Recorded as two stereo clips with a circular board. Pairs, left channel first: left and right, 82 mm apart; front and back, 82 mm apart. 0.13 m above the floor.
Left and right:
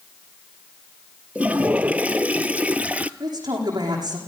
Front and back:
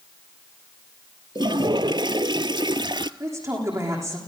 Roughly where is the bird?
I don't hear a bird.